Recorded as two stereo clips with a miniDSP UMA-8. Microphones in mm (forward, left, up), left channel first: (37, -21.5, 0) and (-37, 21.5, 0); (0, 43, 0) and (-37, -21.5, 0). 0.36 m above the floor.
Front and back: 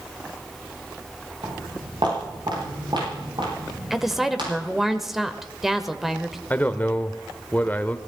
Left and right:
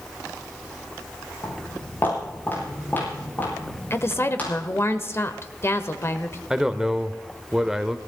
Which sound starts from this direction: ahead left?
A woman speaking, at 3.9 s.